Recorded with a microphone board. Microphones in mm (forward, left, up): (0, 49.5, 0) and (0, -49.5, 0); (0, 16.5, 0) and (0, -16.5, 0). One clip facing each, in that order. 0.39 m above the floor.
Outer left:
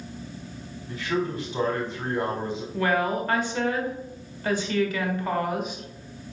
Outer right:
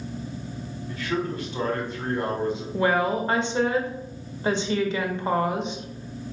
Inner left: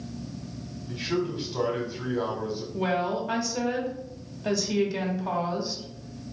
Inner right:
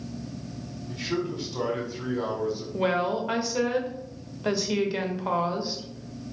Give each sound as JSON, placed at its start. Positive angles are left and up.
{"t": 0.9, "sound": "a man speaking", "side_deg": 20, "distance_m": 1.4}
{"t": 2.7, "sound": "a woman speaking", "side_deg": -25, "distance_m": 1.0}